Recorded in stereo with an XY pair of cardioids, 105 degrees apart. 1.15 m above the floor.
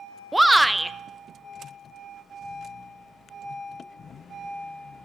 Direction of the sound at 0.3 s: 5° right.